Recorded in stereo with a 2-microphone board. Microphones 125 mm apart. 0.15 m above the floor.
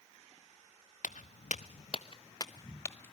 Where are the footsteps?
80° left, 0.9 m; by 3.1 s 15° left (ahead or behind), 1.2 m.